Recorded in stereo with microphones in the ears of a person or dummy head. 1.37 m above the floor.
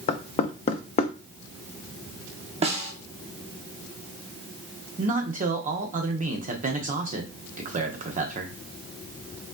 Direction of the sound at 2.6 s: 40° right (ahead or behind).